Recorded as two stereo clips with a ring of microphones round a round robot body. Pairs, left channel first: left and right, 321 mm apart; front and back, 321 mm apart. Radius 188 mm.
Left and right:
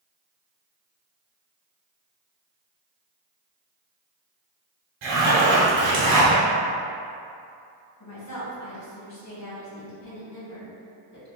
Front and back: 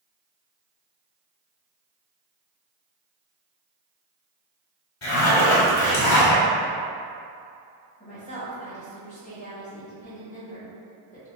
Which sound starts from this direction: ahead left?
A woman speaking, at 8.0 s.